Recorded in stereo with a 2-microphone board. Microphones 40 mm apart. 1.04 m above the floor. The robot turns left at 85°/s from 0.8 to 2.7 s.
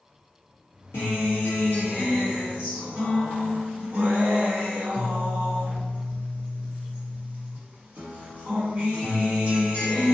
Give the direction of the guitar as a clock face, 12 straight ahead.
8 o'clock.